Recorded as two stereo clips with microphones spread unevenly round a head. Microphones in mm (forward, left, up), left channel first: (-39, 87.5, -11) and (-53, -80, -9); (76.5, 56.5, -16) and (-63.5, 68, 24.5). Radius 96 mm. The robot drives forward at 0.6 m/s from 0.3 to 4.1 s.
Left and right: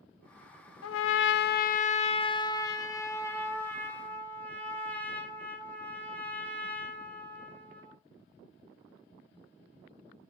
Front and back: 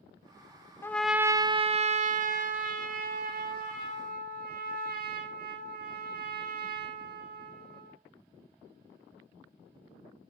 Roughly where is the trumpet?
Left.